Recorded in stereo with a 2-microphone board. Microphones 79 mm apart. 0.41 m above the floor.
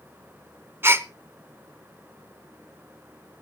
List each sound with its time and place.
0.8 s a gasp: 30° right (ahead or behind), 0.8 m